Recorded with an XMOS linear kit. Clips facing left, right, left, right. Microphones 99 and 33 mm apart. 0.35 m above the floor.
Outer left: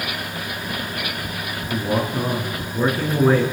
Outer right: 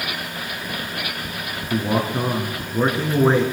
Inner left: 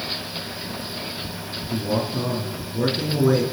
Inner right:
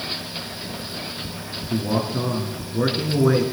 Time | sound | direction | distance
1.7 | a man speaking | 20° right (ahead or behind) | 5 m